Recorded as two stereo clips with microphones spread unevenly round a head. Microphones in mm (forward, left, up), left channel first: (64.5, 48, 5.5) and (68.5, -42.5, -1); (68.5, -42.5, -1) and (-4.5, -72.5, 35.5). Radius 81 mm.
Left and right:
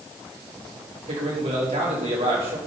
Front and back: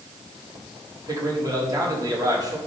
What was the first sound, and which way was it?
A man speaking, 110° right.